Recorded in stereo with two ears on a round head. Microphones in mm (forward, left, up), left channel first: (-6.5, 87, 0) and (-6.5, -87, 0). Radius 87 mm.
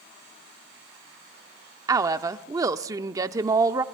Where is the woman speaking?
15° right (ahead or behind), 0.7 m.